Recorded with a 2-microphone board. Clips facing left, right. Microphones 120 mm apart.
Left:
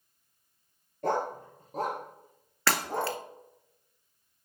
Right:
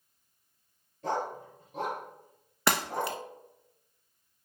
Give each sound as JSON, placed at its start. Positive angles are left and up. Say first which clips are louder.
{"t": 1.0, "sound": "a dog barking", "louder": "left 3 dB", "side_deg": 60, "distance_m": 1.0}
{"t": 2.7, "sound": "breaking glass", "louder": "even", "side_deg": -20, "distance_m": 0.7}